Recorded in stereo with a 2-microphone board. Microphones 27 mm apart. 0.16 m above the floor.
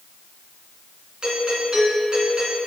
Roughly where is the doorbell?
Right.